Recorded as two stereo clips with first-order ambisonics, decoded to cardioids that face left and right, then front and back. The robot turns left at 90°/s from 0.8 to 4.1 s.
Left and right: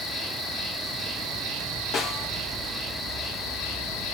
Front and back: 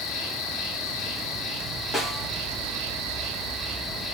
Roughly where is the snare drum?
Left.